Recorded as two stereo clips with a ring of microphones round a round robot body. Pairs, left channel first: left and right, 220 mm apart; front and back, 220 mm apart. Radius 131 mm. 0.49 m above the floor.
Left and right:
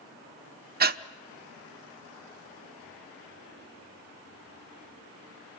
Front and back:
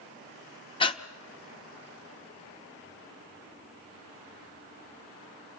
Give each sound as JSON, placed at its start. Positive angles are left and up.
{"t": 0.8, "sound": "breathing", "azimuth_deg": -60, "distance_m": 0.8}